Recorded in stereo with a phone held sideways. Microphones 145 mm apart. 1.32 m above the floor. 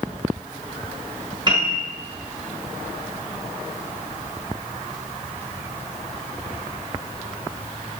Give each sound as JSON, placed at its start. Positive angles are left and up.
{"t": 1.5, "sound": "a piano", "side_deg": -30, "distance_m": 0.9}